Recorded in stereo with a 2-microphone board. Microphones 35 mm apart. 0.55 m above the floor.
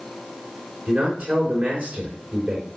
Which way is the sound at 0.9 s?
30° right (ahead or behind).